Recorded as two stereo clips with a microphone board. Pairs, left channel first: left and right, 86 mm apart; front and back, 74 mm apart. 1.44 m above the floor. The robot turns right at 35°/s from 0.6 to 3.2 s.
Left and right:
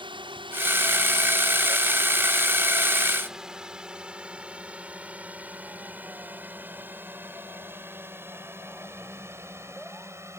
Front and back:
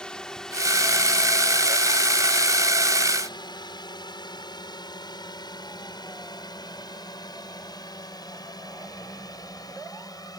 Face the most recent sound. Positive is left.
turn(degrees=-30)